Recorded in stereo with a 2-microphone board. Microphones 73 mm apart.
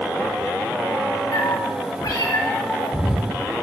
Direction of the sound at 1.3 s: 75° left (ahead or behind).